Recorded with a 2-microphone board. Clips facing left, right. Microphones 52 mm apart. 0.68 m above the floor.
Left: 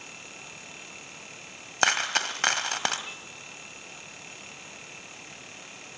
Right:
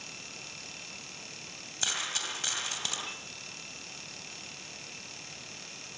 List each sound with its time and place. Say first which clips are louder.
1.8 s a dropped coin: left 11 dB; 65° left (ahead or behind), 2 m